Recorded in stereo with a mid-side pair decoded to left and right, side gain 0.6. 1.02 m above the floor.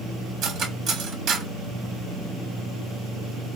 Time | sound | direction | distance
0.4 | cutlery clinking | 60° right | 1.0 m